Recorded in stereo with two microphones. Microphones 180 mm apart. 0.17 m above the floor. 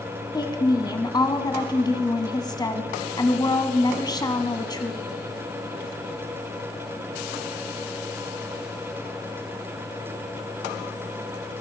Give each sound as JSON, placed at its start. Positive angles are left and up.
{"t": 0.3, "sound": "a woman speaking", "side_deg": 20, "distance_m": 1.2}